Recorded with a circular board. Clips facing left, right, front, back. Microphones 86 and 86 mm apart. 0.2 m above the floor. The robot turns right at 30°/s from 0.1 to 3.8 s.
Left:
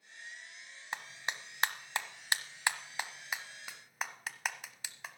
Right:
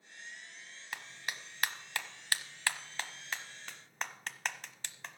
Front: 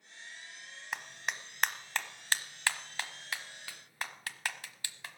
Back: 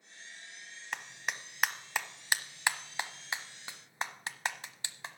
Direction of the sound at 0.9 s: 80° left.